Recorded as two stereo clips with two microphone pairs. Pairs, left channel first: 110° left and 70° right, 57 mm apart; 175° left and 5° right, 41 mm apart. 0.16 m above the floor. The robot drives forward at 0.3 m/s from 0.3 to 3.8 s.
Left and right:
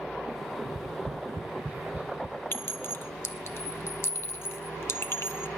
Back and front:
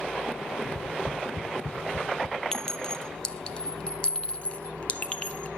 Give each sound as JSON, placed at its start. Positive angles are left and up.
{"t": 0.7, "sound": "tapping", "azimuth_deg": -115, "distance_m": 1.0}
{"t": 2.5, "sound": "a clink", "azimuth_deg": 105, "distance_m": 1.2}